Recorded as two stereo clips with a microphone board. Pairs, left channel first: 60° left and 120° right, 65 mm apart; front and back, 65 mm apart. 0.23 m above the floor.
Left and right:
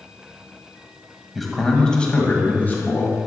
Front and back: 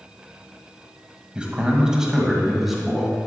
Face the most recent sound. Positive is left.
turn(degrees=90)